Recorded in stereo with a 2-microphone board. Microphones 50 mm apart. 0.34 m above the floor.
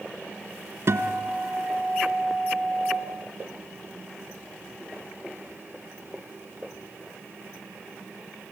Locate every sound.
0.9 s a guitar: 55° right (ahead or behind), 2 m